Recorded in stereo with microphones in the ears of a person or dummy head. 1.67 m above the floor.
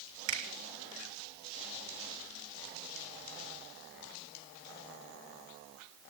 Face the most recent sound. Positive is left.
turn(degrees=-70)  # may be behind; listen again after turning